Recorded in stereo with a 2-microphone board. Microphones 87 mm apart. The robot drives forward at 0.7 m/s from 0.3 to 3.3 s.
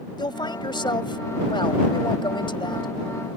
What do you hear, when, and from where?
0.2 s a woman speaking: 60° left (ahead or behind); by 2.9 s 65° left (ahead or behind)